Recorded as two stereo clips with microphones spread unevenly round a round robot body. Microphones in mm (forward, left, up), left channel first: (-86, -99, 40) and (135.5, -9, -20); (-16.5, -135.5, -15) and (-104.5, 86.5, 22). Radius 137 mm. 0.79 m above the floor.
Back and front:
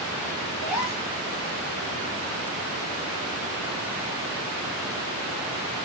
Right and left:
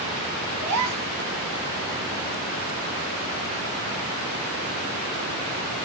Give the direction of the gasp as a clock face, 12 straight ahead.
8 o'clock.